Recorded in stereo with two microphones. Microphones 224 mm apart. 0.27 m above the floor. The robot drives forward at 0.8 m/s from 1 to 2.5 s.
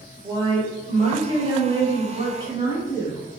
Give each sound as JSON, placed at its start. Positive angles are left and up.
{"t": 0.2, "sound": "a woman speaking", "side_deg": -25, "distance_m": 1.2}